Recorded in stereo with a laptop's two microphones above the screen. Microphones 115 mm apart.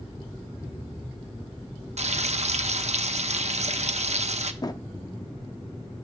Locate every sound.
2.0 s frying: 75° right (ahead or behind), 0.6 m
4.6 s a drawer: 35° left (ahead or behind), 0.5 m